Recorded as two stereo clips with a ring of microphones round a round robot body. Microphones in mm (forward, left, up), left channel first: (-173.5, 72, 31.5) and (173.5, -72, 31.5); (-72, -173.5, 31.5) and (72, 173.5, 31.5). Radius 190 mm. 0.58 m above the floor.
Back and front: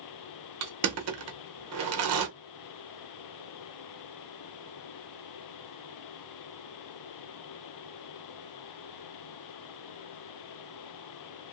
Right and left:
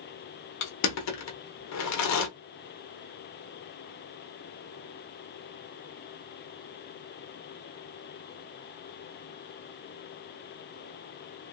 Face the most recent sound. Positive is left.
turn(degrees=-70)